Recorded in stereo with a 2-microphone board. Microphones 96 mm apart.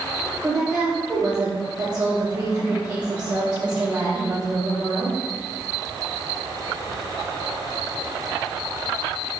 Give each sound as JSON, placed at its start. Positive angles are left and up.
{"t": 0.4, "sound": "a woman speaking", "side_deg": -15, "distance_m": 5.5}